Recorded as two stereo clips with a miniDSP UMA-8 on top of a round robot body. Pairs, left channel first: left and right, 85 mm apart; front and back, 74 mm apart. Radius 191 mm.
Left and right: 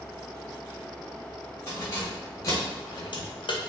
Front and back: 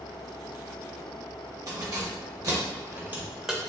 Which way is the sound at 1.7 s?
150° left.